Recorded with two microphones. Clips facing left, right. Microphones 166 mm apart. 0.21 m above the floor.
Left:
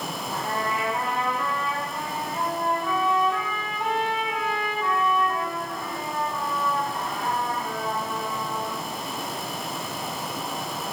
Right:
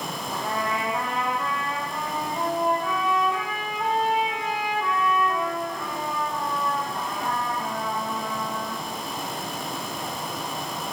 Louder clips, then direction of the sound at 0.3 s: Right 1 dB; 20° right (ahead or behind).